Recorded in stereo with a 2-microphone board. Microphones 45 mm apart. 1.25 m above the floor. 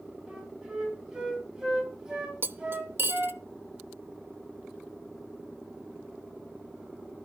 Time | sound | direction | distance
0.3 | a flute | 10° right (ahead or behind) | 3.5 m
2.4 | cutlery clinking | 50° right (ahead or behind) | 0.7 m